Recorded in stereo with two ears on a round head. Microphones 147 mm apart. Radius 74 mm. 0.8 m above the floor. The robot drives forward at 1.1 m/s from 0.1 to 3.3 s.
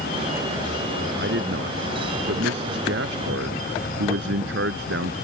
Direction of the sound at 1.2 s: 70° right (ahead or behind).